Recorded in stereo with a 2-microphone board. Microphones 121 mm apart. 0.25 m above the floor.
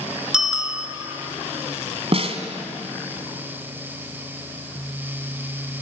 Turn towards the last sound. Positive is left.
turn(degrees=-55)  # may be behind; listen again after turning